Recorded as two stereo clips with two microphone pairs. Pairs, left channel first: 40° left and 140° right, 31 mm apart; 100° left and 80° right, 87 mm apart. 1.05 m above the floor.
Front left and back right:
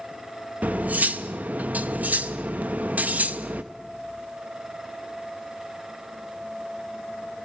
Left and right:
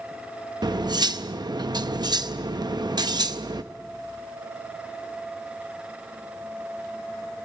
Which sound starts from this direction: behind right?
Cutlery clinking, at 0.6 s.